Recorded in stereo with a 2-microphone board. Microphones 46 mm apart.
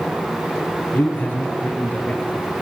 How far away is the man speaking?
About 9 m.